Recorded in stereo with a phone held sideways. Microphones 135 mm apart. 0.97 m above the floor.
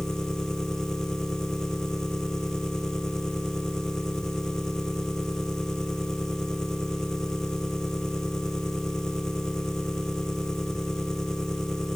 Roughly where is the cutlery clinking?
I don't hear cutlery clinking.